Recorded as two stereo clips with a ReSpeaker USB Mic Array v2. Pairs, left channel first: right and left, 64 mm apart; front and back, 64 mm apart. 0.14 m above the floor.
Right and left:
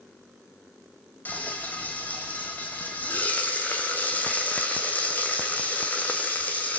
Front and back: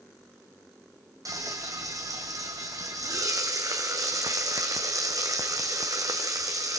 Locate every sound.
1.2 s frying: 155° right, 2.5 m